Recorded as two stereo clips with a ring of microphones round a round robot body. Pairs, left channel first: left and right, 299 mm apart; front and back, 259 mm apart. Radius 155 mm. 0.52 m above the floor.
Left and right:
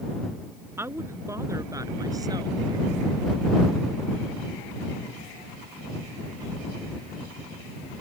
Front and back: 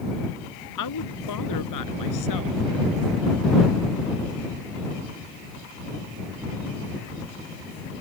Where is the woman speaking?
10° right; by 3.0 s 15° right.